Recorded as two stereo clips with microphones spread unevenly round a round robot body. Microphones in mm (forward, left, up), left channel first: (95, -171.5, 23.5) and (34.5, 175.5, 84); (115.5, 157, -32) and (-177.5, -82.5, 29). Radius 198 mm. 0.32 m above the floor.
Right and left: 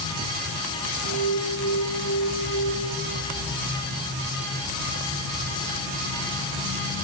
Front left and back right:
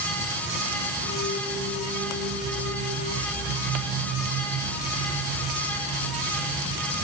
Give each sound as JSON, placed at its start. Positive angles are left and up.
{"t": 1.0, "sound": "an alarm", "azimuth_deg": -15, "distance_m": 3.5}